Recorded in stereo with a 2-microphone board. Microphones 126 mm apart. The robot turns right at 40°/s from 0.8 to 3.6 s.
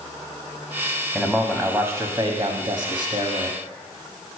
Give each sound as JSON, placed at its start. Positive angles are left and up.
{"t": 1.1, "sound": "a man speaking", "azimuth_deg": -175, "distance_m": 1.1}